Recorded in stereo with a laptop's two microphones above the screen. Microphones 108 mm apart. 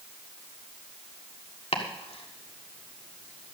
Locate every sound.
1.7 s chopping: 65° left (ahead or behind), 1.6 m